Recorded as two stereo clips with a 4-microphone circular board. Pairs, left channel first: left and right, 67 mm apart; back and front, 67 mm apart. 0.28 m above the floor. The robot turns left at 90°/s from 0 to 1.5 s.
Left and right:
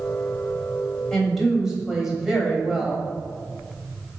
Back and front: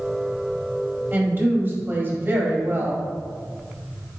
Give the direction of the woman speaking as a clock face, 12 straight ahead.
11 o'clock.